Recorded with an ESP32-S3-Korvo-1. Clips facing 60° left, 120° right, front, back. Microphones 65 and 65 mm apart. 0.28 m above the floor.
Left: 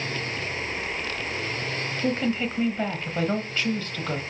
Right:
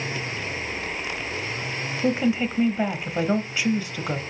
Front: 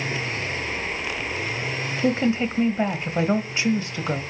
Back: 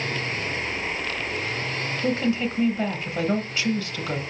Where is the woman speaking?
50° right, 1.1 m.